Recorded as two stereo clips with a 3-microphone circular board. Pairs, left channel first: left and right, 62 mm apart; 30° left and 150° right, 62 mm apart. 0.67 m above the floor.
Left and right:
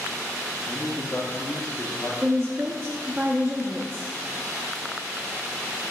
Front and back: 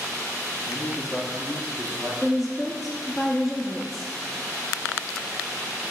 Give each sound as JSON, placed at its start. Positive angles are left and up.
{"t": 0.7, "sound": "a man speaking", "azimuth_deg": 15, "distance_m": 0.6}
{"t": 2.2, "sound": "a woman speaking", "azimuth_deg": -55, "distance_m": 0.6}